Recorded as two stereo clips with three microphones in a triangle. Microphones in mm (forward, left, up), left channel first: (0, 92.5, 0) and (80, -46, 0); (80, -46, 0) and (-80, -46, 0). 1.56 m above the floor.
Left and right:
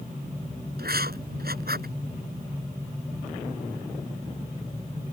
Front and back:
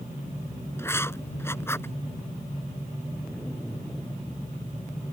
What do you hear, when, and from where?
0.8 s writing: 75° right